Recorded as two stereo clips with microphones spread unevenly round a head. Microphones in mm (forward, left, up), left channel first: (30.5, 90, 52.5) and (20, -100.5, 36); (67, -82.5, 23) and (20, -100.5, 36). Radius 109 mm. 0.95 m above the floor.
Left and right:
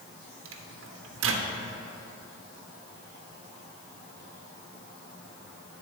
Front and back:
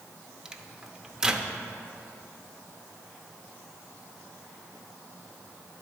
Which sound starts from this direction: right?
A microwave, at 0.5 s.